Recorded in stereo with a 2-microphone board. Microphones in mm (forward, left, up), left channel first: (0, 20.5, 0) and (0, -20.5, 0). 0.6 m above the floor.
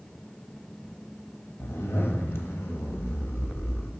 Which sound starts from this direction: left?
A zipper, at 1.6 s.